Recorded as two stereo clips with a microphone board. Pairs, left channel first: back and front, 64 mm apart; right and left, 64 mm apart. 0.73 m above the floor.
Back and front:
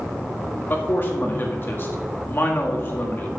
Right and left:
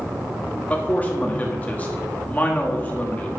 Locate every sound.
0.7 s a man speaking: 145° right, 1.5 m